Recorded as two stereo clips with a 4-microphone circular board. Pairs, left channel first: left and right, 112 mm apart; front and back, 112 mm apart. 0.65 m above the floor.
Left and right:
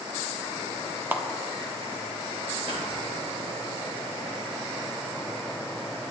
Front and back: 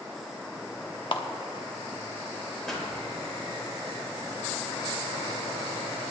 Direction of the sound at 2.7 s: 85° right.